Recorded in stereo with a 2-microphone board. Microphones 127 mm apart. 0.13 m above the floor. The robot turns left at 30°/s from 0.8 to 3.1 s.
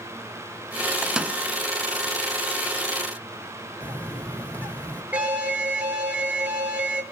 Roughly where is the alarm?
Centre.